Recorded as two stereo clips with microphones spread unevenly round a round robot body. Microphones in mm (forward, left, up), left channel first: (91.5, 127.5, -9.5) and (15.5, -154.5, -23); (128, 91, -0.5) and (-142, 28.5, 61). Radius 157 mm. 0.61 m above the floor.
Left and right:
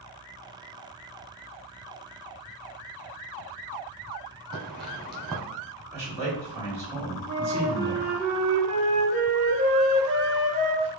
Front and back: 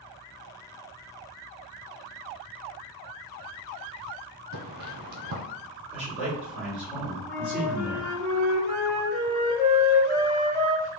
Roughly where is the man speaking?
Ahead right.